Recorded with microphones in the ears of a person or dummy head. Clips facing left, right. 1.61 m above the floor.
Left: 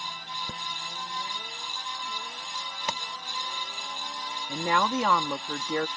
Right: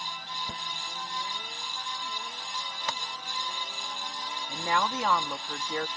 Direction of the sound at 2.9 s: 25° left (ahead or behind).